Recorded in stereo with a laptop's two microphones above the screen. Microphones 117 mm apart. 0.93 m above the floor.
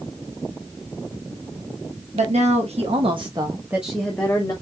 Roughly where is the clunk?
No clunk in this recording.